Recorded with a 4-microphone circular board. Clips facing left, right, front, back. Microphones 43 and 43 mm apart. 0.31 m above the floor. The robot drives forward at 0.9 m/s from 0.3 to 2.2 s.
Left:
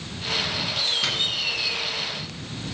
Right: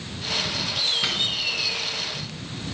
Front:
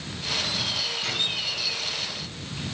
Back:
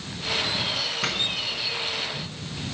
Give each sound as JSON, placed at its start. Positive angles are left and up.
{"t": 1.0, "sound": "a doorbell", "azimuth_deg": -170, "distance_m": 5.0}